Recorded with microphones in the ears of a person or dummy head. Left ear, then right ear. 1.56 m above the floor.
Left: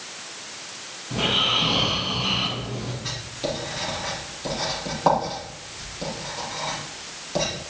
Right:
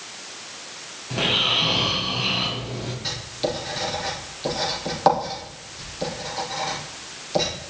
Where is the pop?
I don't hear a pop.